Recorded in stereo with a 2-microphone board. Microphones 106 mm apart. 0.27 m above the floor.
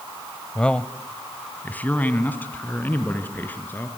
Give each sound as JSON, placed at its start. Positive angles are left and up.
{"t": 0.6, "sound": "a man speaking", "side_deg": 10, "distance_m": 1.0}